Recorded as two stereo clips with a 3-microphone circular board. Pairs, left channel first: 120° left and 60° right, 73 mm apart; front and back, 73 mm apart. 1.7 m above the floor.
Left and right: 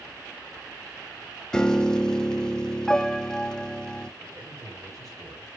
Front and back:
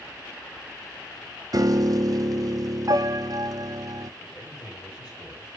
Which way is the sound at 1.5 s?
160° right.